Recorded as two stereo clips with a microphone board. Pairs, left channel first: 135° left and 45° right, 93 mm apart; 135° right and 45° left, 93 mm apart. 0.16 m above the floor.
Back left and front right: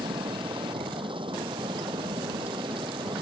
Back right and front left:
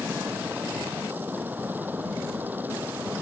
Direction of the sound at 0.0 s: 25° right.